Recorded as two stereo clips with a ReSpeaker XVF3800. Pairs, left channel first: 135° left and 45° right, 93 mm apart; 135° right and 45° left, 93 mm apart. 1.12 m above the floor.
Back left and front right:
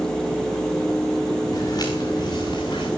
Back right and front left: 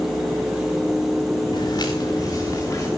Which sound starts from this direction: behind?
Footsteps, at 1.5 s.